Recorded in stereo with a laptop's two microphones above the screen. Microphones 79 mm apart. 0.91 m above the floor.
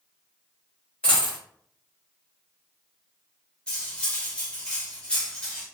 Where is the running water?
No running water in this recording.